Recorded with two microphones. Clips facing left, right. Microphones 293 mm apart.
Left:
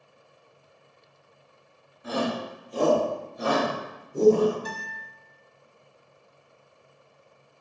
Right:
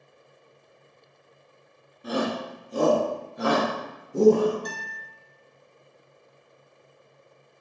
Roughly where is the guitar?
Centre.